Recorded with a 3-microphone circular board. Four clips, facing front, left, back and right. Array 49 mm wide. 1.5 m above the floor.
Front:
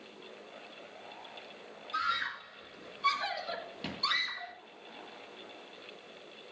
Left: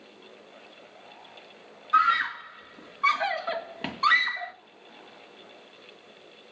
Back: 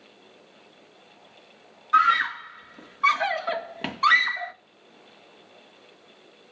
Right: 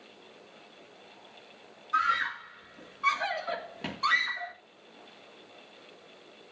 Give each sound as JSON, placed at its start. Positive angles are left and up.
{"t": 1.9, "sound": "a scream", "azimuth_deg": 160, "distance_m": 2.5}